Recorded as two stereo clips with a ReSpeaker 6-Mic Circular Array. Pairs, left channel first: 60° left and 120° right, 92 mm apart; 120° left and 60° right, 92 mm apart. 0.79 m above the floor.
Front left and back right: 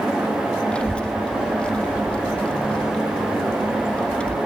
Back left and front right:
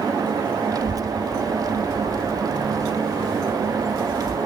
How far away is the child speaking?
About 0.7 m.